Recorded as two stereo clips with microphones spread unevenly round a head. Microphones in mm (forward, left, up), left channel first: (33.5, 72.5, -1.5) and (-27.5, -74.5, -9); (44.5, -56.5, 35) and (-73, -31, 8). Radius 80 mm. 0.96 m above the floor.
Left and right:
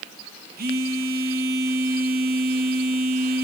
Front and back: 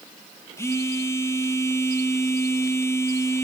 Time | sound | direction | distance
0.6 | a phone buzzing | 85° right | 1.0 m